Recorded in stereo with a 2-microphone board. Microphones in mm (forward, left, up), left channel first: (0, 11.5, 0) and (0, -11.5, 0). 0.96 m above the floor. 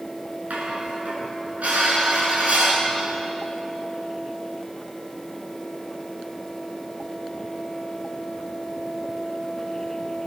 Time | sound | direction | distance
0.5 | dishes clattering | 80° right | 7.5 m